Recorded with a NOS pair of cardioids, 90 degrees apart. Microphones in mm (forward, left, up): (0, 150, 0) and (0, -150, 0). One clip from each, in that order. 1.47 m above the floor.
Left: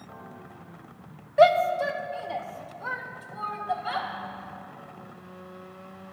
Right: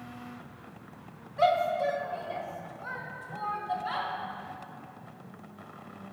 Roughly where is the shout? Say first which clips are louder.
Left 6 dB; ahead left.